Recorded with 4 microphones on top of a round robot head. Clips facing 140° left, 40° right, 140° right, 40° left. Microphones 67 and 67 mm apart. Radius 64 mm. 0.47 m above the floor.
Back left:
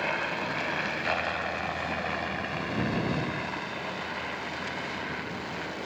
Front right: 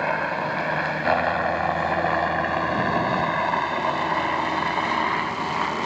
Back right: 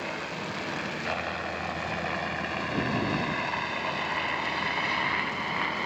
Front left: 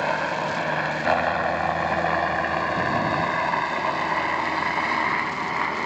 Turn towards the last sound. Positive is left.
turn(degrees=-20)